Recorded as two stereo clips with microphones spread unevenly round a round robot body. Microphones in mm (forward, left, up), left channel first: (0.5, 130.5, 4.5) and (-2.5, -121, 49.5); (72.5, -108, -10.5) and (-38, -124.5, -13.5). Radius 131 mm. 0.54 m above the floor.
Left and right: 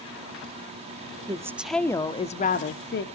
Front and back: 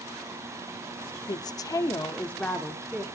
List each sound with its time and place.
1.3 s a woman speaking: 10° right, 0.8 m; by 3.0 s 105° left, 1.1 m